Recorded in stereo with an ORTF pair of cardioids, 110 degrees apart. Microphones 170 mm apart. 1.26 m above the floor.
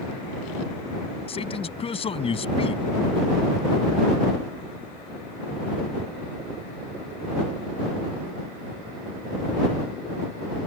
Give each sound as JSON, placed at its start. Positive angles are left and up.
{"t": 1.3, "sound": "a man speaking", "azimuth_deg": 35}